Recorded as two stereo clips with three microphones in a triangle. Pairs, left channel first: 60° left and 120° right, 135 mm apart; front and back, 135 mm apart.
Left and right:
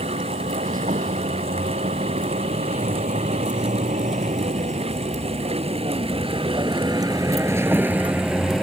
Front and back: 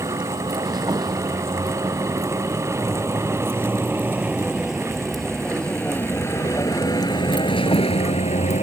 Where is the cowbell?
I don't hear a cowbell.